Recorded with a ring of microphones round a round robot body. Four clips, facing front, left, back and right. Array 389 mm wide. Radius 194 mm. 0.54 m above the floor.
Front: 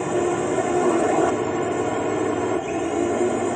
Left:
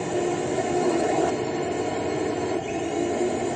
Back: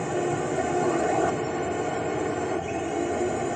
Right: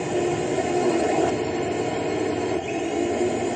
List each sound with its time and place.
0.0 s a drone: 15° right